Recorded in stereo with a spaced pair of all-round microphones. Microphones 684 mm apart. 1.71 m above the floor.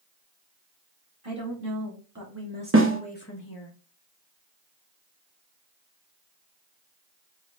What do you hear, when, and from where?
1.2 s a woman speaking: 45° right (ahead or behind), 1.8 m; by 3.7 s 45° left (ahead or behind), 1.0 m
2.7 s a snare drum: 20° right (ahead or behind), 1.1 m